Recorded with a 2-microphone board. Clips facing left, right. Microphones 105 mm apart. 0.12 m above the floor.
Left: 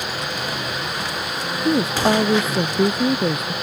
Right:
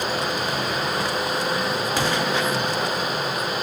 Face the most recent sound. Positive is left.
turn(degrees=70)  # may be behind; listen again after turning